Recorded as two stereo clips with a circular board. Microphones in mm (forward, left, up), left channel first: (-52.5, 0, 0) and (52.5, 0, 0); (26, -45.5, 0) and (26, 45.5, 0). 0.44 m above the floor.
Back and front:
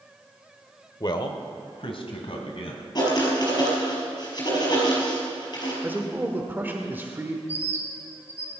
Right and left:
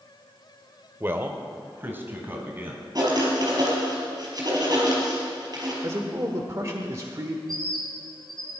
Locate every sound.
1.0 s a man speaking: 145° left, 1.1 m; by 2.8 s 155° left, 3 m
3.0 s writing: 135° left, 5 m
5.8 s a man speaking: 60° left, 1.1 m
7.5 s a bird: 115° right, 3 m